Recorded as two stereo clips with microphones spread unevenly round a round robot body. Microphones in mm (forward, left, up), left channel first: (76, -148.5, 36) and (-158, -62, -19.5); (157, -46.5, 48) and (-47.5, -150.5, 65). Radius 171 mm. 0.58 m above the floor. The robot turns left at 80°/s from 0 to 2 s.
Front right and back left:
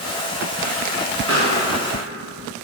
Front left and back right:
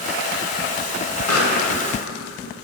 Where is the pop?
45° left, 1.7 m; by 1.6 s 20° left, 1.7 m.